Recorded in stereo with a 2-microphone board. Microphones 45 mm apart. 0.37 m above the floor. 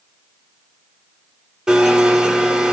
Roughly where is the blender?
Centre.